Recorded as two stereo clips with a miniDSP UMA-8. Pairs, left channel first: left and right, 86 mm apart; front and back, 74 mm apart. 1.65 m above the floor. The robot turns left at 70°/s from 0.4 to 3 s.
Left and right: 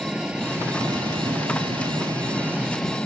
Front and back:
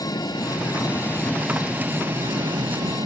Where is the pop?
No pop in this recording.